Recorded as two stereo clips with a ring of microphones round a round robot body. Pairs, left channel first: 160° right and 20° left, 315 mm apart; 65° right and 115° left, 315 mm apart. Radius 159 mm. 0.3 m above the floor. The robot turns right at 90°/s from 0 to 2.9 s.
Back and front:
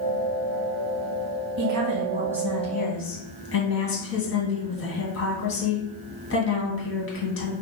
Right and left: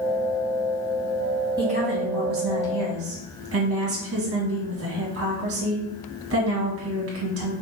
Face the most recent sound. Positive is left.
turn(degrees=155)